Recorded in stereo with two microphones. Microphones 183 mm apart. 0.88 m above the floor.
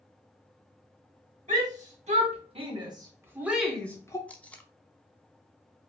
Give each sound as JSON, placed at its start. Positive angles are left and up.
{"t": 1.5, "sound": "a shout", "side_deg": -45, "distance_m": 2.0}
{"t": 4.3, "sound": "tape being pulled", "side_deg": 5, "distance_m": 0.5}